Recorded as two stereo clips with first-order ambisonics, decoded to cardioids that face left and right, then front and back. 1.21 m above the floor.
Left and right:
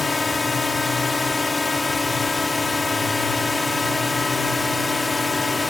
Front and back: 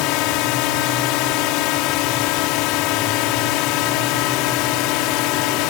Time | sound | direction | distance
0.0 | a drone | 10° left | ?